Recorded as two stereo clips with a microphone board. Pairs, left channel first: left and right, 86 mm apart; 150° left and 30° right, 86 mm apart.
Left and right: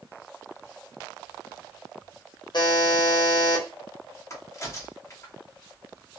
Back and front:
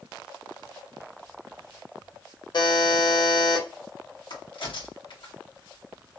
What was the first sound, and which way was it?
A buzzer, 120° left.